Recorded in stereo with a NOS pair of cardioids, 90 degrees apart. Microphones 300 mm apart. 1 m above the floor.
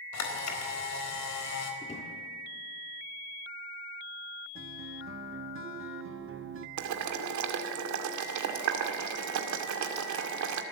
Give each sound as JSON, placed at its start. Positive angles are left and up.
{"t": 0.1, "sound": "a camera shutter", "azimuth_deg": 60, "distance_m": 4.0}
{"t": 1.8, "sound": "a drawer", "azimuth_deg": 20, "distance_m": 7.0}
{"t": 4.5, "sound": "a guitar", "azimuth_deg": -40, "distance_m": 1.7}
{"t": 6.8, "sound": "boiling", "azimuth_deg": -65, "distance_m": 2.0}